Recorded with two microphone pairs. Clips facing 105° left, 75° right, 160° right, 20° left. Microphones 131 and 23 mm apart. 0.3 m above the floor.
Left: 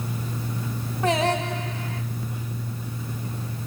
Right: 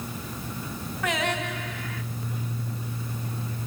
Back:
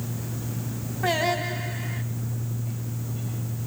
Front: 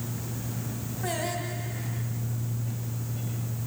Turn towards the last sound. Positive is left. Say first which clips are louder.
# left 6 dB, back 8 dB
turn(degrees=155)